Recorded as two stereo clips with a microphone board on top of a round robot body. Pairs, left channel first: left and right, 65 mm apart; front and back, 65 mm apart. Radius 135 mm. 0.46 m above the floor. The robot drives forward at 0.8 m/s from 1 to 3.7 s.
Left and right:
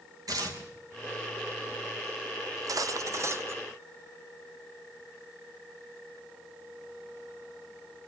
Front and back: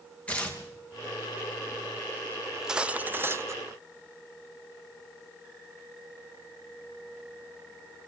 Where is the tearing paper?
70° right, 3.5 m.